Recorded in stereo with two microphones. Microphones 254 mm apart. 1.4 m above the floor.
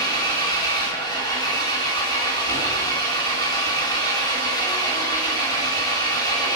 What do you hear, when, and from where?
0.0 s an engine running: 15° left (ahead or behind), 1.7 m